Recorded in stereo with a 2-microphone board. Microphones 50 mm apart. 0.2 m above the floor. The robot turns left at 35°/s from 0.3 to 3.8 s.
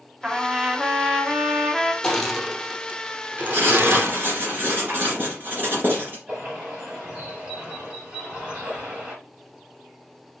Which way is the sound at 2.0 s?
10° left (ahead or behind).